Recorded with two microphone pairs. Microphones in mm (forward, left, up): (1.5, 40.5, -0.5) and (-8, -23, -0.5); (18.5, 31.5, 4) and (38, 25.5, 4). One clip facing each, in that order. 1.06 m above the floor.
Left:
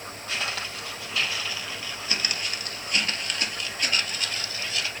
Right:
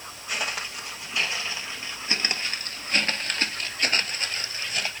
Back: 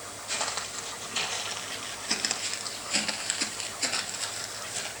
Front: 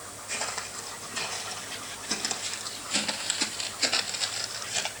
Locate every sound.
0.3 s footsteps: 175° right, 2 m; by 4.9 s 55° right, 1.5 m